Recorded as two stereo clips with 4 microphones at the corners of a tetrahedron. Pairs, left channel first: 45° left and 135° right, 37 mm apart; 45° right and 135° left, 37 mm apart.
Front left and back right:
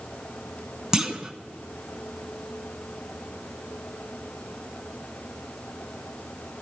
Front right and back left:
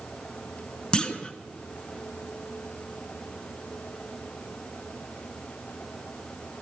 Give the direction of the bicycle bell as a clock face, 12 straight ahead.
I don't hear a bicycle bell.